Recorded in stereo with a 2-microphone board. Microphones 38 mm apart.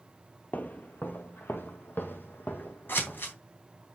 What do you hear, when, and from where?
0.5 s footsteps: 50° left (ahead or behind), 0.9 m; by 3.4 s 65° left (ahead or behind), 2 m
2.9 s scissors: 70° left (ahead or behind), 3 m